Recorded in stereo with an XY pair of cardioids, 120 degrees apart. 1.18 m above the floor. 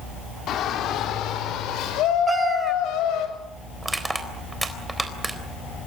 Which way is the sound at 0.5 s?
65° left.